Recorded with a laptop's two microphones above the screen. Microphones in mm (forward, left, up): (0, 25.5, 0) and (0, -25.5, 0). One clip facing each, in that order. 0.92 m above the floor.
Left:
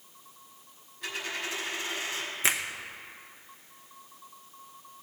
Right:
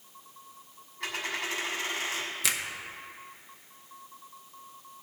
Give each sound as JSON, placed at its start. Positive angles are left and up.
{"t": 1.0, "sound": "a dropped coin", "side_deg": -75, "distance_m": 2.5}
{"t": 2.4, "sound": "a finger snap", "side_deg": 30, "distance_m": 0.8}